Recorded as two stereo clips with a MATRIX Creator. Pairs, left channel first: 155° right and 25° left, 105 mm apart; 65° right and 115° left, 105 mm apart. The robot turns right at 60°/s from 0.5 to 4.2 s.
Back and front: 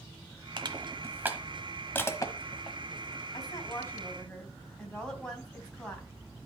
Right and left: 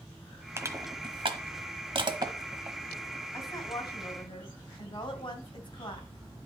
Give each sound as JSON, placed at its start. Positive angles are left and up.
{"t": 0.6, "sound": "crushing", "azimuth_deg": 50, "distance_m": 1.1}
{"t": 3.3, "sound": "a woman speaking", "azimuth_deg": -125, "distance_m": 2.5}